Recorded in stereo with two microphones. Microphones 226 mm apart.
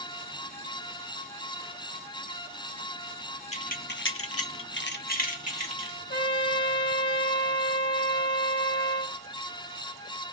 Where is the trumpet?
50° left (ahead or behind), 1.3 m.